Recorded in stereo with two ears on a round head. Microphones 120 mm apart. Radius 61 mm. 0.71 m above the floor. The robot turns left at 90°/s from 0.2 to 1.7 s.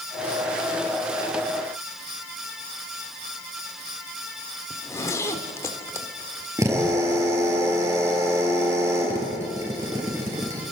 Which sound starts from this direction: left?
A zipper, at 4.7 s.